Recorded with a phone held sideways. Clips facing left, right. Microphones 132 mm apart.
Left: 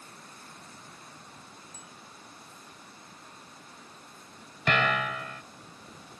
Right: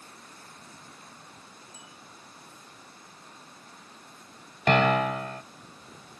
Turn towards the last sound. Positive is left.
turn(degrees=-40)  # may be behind; listen again after turning